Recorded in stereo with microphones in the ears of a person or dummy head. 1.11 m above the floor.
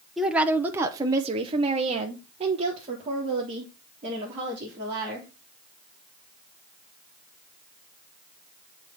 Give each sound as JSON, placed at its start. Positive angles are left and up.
{"t": 0.2, "sound": "a woman speaking", "side_deg": -5, "distance_m": 0.8}